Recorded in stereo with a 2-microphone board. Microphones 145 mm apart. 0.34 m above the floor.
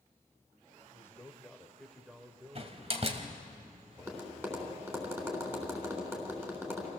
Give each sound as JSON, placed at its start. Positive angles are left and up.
{"t": 0.9, "sound": "a man speaking", "side_deg": 15, "distance_m": 1.5}
{"t": 2.5, "sound": "a door slam", "side_deg": -45, "distance_m": 1.6}
{"t": 4.0, "sound": "tapping", "side_deg": -15, "distance_m": 3.5}